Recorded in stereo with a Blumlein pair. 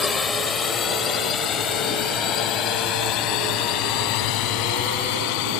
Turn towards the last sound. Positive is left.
turn(degrees=45)